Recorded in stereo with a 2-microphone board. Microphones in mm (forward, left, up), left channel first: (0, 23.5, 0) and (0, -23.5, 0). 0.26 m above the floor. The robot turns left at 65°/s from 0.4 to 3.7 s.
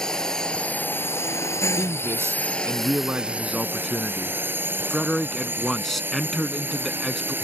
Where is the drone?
165° left; by 7.5 s 50° right.